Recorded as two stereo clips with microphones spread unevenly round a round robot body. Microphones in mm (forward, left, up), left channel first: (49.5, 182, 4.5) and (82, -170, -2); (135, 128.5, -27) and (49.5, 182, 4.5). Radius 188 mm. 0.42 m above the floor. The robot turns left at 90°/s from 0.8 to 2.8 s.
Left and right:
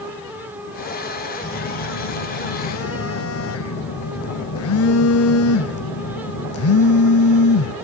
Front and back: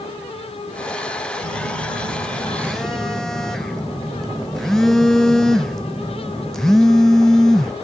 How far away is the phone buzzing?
About 0.7 m.